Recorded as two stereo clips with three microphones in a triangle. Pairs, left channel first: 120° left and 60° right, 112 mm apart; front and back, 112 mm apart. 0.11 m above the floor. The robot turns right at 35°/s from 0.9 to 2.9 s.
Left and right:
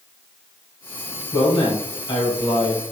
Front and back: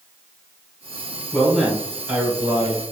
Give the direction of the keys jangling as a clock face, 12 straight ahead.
I don't hear keys jangling.